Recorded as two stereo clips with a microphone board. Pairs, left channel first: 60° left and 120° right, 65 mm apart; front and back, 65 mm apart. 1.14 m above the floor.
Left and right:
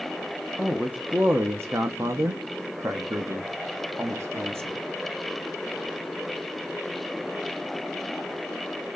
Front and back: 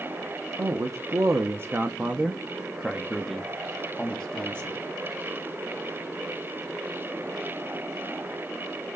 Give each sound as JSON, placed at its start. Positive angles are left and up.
{"t": 0.6, "sound": "a man speaking", "azimuth_deg": 170, "distance_m": 1.0}